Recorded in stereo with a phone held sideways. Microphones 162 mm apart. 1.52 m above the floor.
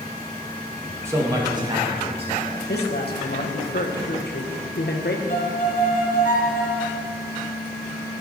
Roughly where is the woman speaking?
Left.